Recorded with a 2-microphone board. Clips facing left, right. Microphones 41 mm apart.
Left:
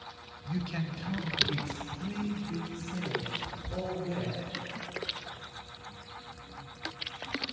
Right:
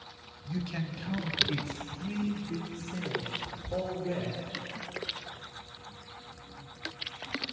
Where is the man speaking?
20° left (ahead or behind), 1.1 m; by 4.5 s 75° right (ahead or behind), 4.5 m.